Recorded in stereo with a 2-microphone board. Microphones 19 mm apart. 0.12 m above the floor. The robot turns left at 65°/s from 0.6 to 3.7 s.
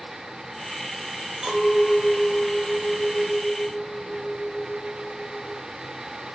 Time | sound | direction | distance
1.4 | a clink | 130° right | 0.8 m